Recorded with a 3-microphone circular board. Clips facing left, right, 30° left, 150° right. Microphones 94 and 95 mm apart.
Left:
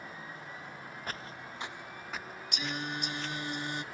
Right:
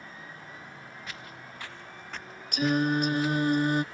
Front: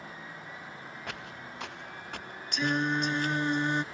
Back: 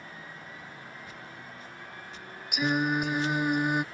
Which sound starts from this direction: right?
Singing, at 2.5 s.